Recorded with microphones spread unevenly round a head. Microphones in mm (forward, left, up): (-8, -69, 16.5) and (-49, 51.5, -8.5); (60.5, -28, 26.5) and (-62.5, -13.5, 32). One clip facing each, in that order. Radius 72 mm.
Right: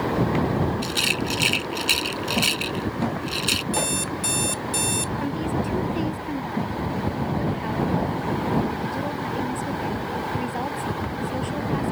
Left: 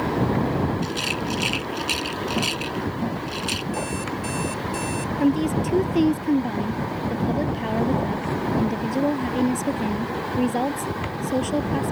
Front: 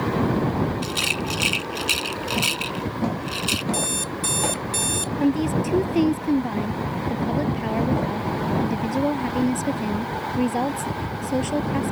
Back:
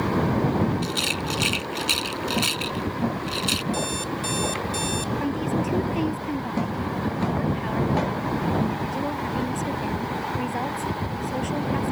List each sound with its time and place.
0.8 s a rattle: 90° right
3.7 s an alarm clock: 40° right
5.2 s a woman speaking: 55° left